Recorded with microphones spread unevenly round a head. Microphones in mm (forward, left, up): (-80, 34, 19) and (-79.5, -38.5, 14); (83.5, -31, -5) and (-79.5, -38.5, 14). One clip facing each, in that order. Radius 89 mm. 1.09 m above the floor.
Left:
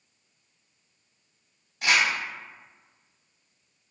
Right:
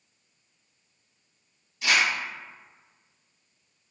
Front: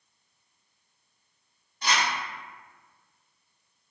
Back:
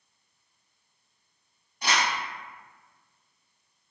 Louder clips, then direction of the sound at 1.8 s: Left 1 dB, even; 105° left.